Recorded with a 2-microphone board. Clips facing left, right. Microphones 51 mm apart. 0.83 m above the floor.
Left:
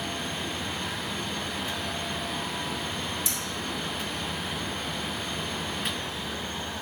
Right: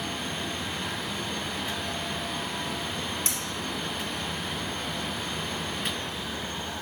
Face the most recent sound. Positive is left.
turn(degrees=-60)  # may be behind; listen again after turning